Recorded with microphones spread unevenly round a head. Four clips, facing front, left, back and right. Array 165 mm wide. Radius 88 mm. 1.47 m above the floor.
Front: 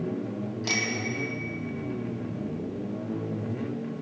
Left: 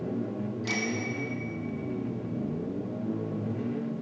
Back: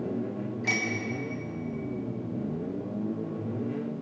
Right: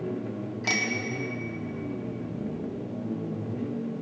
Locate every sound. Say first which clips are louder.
0.6 s a bicycle bell: right 3 dB, even; 90° right, 2 m